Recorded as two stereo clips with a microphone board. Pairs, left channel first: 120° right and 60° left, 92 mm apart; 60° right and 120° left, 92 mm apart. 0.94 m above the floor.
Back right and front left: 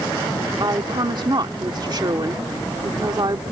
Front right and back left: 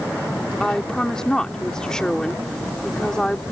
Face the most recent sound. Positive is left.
turn(degrees=25)